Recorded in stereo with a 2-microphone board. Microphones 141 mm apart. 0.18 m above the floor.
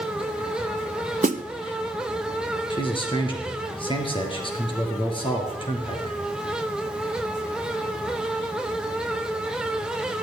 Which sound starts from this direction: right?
A snare drum, at 1.2 s.